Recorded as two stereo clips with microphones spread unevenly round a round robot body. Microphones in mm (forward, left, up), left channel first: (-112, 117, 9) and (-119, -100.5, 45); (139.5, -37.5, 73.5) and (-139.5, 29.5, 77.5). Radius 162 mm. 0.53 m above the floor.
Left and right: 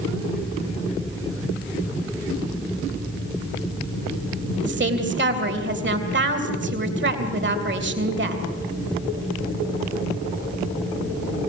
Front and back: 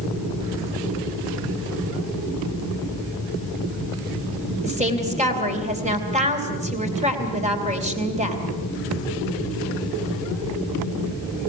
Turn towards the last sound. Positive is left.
turn(degrees=-125)